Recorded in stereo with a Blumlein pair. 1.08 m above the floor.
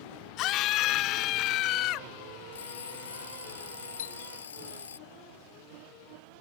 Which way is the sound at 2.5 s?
65° left.